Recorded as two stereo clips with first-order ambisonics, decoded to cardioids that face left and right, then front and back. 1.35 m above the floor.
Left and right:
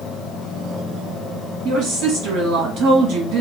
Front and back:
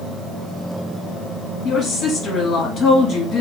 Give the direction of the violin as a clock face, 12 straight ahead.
I don't hear a violin.